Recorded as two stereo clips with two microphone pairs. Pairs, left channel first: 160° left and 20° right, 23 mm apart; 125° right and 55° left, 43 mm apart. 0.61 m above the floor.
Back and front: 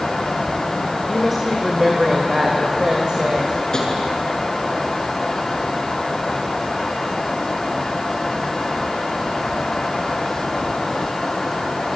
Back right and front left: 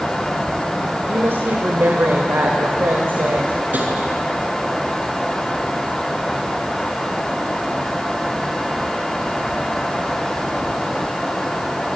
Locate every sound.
1.1 s a woman speaking: 65° left, 2.5 m; by 3.6 s 20° left, 3.5 m
3.7 s tapping: 100° left, 8 m